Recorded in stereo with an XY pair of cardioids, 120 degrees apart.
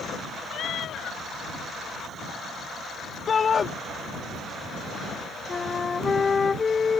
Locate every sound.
0.5 s a cat meowing: 55° left
3.3 s a shout: 35° left
5.5 s a flute: 30° left